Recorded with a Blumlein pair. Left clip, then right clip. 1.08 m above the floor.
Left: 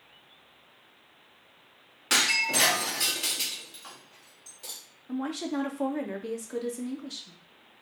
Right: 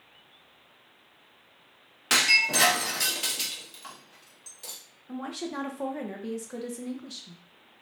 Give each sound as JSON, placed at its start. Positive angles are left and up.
{"t": 2.1, "sound": "breaking glass", "azimuth_deg": -15, "distance_m": 0.8}
{"t": 5.1, "sound": "a woman speaking", "azimuth_deg": 5, "distance_m": 0.6}